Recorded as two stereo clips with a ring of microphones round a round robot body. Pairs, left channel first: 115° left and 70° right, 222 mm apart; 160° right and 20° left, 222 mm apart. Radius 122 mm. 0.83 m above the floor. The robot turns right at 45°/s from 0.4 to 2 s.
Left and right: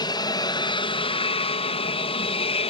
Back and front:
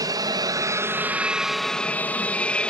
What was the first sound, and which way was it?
An aircraft, 70° left.